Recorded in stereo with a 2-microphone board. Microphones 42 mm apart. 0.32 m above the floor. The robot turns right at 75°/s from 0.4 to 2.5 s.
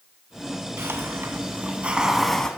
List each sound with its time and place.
0.8 s a hiss: 110° right, 1.5 m; by 2.5 s 20° left, 1.5 m